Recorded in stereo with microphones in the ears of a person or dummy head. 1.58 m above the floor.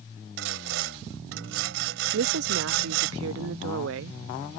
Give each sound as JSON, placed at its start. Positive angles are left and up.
{"t": 0.4, "sound": "sawing", "side_deg": -65}
{"t": 2.1, "sound": "a woman speaking", "side_deg": -70}